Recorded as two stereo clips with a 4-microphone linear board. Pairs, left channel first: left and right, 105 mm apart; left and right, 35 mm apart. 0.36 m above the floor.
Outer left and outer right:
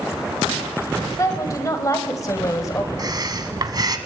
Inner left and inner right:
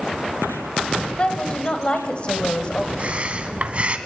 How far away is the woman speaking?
About 2 m.